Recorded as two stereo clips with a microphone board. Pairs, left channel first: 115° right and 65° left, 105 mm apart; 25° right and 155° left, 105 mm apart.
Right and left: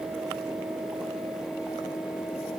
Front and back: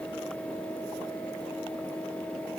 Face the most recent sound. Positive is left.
No sound to turn to.